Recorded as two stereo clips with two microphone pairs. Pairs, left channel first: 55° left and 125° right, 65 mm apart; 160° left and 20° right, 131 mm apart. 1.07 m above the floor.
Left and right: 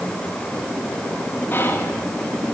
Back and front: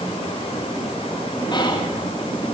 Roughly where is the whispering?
Left.